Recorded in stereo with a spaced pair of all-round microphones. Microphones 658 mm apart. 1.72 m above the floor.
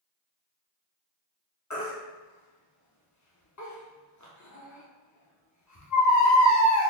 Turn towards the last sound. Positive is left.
turn(degrees=30)  # may be behind; listen again after turning